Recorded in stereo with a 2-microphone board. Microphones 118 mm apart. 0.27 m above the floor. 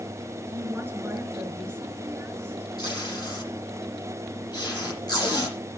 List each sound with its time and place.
0.5 s a woman speaking: 20° right (ahead or behind), 4 m
2.8 s tape being pulled: 35° left (ahead or behind), 8 m